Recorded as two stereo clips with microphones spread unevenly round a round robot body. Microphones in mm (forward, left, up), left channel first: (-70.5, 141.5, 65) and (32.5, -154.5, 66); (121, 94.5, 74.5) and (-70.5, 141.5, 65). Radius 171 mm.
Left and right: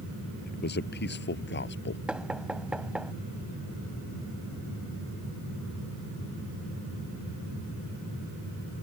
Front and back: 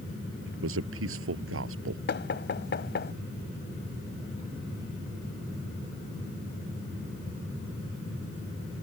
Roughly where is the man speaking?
Behind.